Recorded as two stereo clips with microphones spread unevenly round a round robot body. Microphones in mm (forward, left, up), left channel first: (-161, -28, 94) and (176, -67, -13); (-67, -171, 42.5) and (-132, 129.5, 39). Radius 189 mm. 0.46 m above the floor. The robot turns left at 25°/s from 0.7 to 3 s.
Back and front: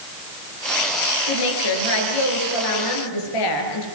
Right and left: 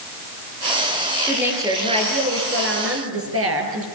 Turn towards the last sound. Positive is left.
turn(degrees=145)